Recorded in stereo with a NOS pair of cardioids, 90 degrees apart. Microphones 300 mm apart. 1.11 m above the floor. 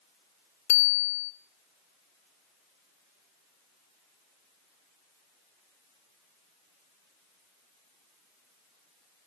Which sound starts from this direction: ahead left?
A bicycle bell, at 0.7 s.